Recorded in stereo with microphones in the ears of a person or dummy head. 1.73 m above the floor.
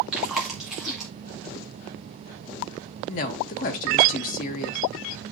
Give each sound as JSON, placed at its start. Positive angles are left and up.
{"t": 0.1, "sound": "chewing", "side_deg": 0, "distance_m": 2.0}
{"t": 3.1, "sound": "a woman speaking", "side_deg": 50, "distance_m": 1.0}